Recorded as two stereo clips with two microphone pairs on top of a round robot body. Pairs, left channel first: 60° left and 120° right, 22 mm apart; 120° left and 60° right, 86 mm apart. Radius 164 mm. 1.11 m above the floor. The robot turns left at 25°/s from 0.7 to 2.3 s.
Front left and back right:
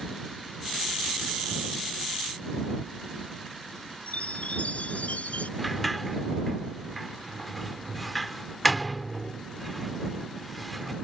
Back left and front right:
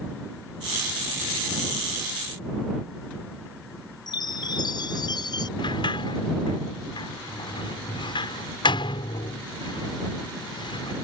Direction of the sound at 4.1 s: 80° left.